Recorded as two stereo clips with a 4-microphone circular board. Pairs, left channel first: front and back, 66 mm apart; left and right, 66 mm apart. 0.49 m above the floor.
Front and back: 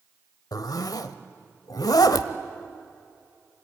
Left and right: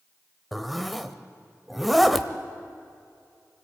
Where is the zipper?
Straight ahead, 1.0 m.